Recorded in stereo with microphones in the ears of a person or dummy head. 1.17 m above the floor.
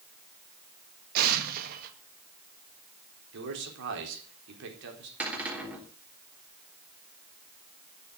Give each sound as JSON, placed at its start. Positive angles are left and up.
{"t": 1.1, "sound": "an explosion", "side_deg": -50, "distance_m": 1.7}
{"t": 3.3, "sound": "a man speaking", "side_deg": -70, "distance_m": 4.0}
{"t": 5.2, "sound": "a cupboard door", "side_deg": -5, "distance_m": 3.5}